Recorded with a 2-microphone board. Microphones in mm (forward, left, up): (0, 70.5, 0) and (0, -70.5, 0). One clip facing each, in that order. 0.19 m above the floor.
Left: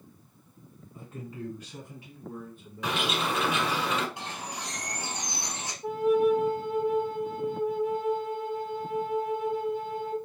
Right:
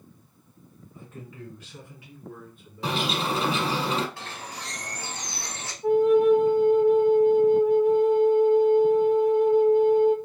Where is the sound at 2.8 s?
35° right (ahead or behind), 0.9 m.